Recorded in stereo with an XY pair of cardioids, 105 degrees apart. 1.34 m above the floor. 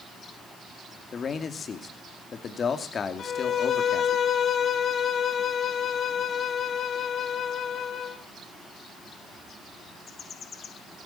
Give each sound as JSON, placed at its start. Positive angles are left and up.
{"t": 1.1, "sound": "a man speaking", "azimuth_deg": 45, "distance_m": 2.5}
{"t": 3.2, "sound": "a violin", "azimuth_deg": 55, "distance_m": 1.8}